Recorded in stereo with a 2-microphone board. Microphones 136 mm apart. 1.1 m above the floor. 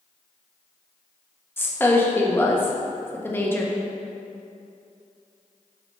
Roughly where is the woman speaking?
Centre.